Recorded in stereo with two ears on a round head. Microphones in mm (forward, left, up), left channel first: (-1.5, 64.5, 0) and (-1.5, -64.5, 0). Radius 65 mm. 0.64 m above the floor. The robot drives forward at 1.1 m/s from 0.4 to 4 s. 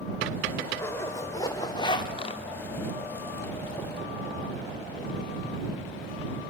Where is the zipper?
20° left (ahead or behind), 2.5 m; by 2.4 s 40° left (ahead or behind), 1.2 m.